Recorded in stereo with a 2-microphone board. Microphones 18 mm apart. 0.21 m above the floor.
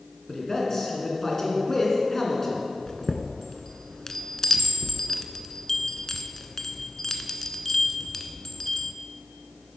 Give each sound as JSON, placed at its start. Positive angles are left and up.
{"t": 0.3, "sound": "a man speaking", "side_deg": 25, "distance_m": 3.0}
{"t": 2.9, "sound": "a chime", "side_deg": 20, "distance_m": 0.7}